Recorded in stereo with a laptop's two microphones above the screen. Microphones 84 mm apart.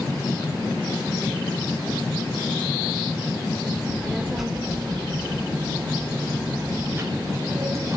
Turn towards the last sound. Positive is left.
turn(degrees=-35)  # may be behind; listen again after turning